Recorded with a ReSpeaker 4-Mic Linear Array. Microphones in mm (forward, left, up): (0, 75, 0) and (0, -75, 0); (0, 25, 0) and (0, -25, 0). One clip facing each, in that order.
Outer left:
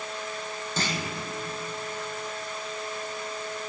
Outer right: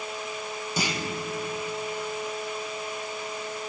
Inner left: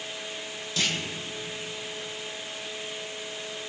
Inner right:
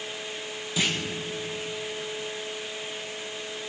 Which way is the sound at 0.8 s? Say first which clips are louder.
Outer right 1 dB, inner right 2 dB; 15° right (ahead or behind).